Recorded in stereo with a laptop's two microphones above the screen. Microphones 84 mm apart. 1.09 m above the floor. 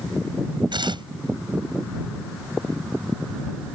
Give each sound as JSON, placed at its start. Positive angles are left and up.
{"t": 0.7, "sound": "tearing paper", "side_deg": -65}